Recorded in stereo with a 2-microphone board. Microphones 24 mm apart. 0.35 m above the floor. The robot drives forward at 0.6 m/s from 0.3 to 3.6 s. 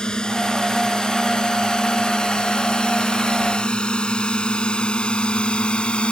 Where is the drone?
35° left (ahead or behind); by 6.1 s 50° left (ahead or behind).